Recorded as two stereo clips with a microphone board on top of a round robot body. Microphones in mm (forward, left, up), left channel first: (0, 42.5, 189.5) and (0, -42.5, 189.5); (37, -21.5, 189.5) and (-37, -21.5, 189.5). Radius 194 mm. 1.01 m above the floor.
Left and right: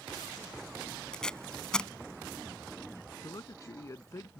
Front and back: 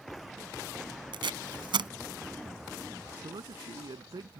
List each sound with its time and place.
1.1 s tape being pulled: 170° left
3.2 s a man speaking: 145° left